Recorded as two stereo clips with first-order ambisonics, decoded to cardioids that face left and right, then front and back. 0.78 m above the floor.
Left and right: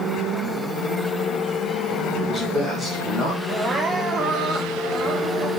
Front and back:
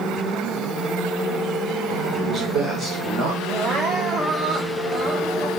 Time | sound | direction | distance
2.1 | a man speaking | 125° right | 1.2 m
3.5 | crying | 140° right | 0.6 m